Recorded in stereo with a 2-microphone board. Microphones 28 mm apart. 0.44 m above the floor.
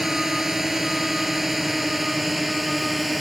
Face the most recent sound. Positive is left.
turn(degrees=0)  # may be behind; listen again after turning